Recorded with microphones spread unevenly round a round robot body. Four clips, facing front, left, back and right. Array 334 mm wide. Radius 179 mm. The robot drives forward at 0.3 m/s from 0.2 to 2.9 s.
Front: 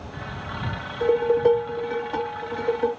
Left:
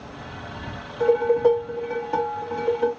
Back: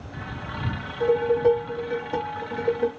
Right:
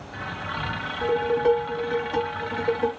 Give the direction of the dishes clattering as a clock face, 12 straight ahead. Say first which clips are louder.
Left 4 dB, front 1 dB; 7 o'clock.